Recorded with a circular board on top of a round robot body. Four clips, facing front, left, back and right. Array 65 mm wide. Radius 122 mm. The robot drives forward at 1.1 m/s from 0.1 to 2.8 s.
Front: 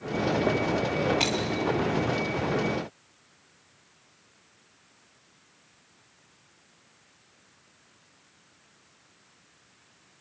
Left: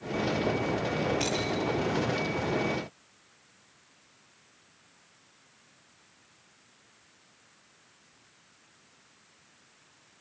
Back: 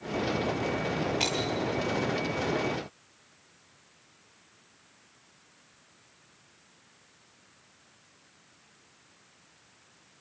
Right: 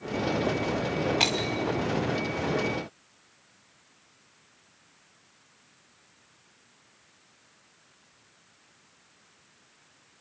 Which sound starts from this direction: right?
Breaking glass, at 1.2 s.